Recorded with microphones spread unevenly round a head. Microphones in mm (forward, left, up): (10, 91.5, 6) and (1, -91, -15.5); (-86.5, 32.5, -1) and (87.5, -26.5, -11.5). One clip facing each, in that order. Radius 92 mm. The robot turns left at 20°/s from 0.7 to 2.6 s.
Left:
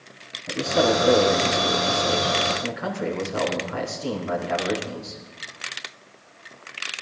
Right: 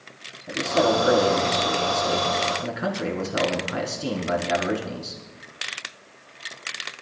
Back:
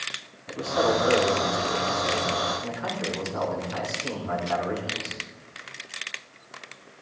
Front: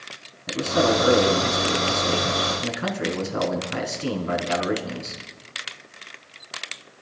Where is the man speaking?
Straight ahead, 4.5 m; by 5.2 s 35° right, 4.5 m.